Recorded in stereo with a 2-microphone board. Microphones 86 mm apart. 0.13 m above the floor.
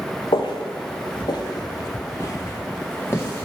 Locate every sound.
0.3 s footsteps: 80° left, 0.7 m; by 3.5 s 25° left (ahead or behind), 1.7 m